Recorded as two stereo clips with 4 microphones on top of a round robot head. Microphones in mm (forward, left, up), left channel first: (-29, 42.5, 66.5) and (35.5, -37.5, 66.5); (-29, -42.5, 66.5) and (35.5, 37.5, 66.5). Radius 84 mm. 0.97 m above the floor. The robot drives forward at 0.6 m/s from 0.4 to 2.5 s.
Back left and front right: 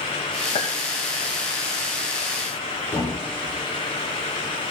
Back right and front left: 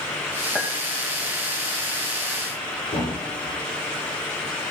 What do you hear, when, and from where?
0.6 s a clink: 145° left, 3.5 m; by 0.7 s 150° left, 3.5 m
2.9 s a thud: 160° right, 6.5 m